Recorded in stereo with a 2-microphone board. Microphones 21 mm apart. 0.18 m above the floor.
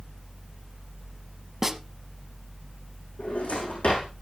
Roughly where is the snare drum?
Centre.